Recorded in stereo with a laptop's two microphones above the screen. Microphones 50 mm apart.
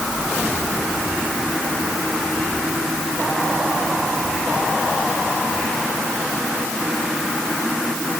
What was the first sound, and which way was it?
Only background noise.